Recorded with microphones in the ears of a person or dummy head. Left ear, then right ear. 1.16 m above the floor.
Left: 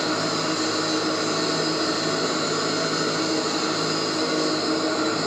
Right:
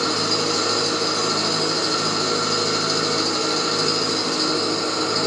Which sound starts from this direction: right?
An engine running, at 0.0 s.